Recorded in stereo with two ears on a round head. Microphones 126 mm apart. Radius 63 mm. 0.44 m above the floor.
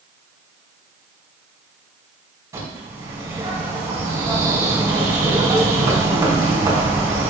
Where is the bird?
25° right (ahead or behind), 4 m.